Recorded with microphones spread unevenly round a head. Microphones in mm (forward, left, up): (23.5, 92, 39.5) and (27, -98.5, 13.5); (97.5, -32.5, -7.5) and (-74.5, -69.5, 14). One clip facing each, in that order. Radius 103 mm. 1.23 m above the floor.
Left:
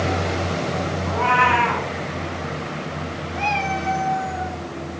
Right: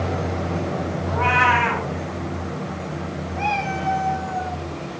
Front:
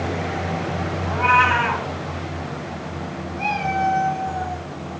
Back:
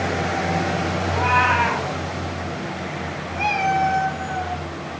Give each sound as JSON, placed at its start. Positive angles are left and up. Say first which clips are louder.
{"t": 1.1, "sound": "a cat meowing", "louder": "left 1 dB, front 3 dB", "azimuth_deg": -15, "distance_m": 3.5}
{"t": 3.4, "sound": "a cat meowing", "louder": "left 1 dB, back 3 dB", "azimuth_deg": 155, "distance_m": 1.7}